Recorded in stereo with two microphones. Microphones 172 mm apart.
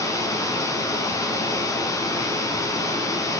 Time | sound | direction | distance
0.0 | running water | 20° left (ahead or behind) | 2 m